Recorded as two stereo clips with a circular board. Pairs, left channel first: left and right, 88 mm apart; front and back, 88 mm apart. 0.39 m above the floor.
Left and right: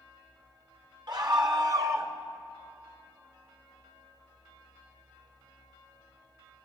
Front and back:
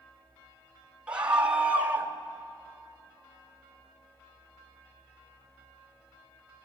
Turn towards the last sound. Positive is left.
turn(degrees=-125)